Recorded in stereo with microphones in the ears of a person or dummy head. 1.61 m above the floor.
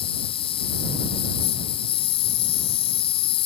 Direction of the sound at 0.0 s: 30° left (ahead or behind).